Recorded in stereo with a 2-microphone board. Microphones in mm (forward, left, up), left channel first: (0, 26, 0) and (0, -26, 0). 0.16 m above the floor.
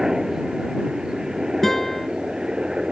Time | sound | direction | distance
0.0 | a helicopter | 10° right (ahead or behind) | ?
1.6 | a guitar | 5° left (ahead or behind) | ?